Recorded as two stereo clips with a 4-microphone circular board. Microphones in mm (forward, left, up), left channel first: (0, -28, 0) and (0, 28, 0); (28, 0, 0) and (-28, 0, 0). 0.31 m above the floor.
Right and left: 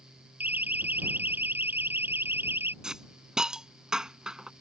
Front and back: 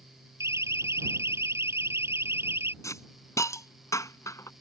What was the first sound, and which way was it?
A siren, 145° left.